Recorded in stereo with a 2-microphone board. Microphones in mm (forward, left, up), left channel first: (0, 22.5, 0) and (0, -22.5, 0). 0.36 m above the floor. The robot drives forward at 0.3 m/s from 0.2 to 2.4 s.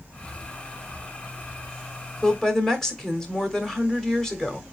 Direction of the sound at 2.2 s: 15° left (ahead or behind).